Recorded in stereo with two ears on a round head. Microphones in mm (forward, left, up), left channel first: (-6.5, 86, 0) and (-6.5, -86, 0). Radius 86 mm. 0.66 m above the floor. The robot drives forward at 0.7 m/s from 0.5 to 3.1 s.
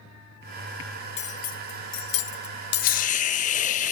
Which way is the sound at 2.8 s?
45° left (ahead or behind).